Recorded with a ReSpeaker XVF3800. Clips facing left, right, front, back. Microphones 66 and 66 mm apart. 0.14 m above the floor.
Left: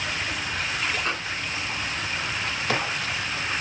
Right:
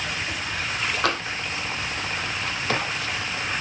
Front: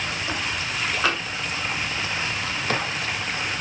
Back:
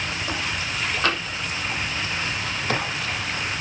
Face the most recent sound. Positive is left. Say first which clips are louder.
# right 5 dB, even
turn(degrees=-85)